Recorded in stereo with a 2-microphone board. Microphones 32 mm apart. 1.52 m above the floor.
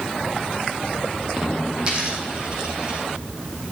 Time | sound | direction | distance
1.8 | a dropped coin | 30° right (ahead or behind) | 4.5 m